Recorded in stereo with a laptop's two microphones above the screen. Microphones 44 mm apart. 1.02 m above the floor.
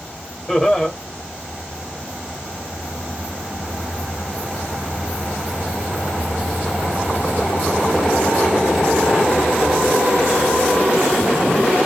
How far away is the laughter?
About 1.2 m.